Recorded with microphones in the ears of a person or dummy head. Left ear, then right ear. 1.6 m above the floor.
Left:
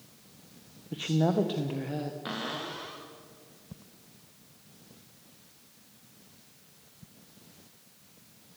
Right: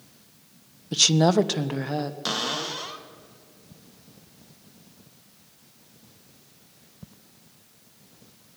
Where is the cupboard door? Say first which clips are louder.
Right 10 dB; 90° right, 1.6 m.